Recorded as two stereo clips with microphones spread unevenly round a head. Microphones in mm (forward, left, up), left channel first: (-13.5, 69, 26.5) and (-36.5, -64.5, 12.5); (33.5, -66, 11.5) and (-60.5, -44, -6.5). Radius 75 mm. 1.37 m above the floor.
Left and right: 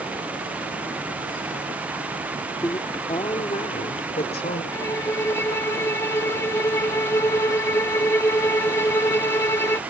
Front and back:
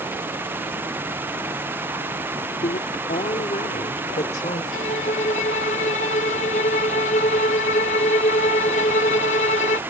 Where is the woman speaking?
5° left; by 4.6 s 30° left.